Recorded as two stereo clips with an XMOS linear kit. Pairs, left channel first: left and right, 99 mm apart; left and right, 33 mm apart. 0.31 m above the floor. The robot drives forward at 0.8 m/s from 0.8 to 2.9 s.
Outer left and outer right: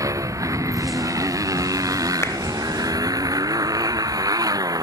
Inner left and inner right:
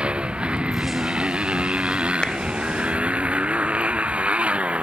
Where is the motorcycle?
35° right (ahead or behind).